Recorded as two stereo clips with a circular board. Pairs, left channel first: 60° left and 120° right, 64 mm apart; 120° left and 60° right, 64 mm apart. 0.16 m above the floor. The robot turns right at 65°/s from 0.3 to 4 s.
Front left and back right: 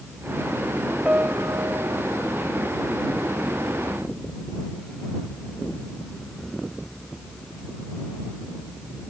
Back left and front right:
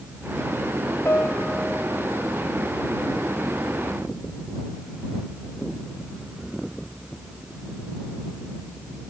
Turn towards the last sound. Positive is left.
turn(degrees=0)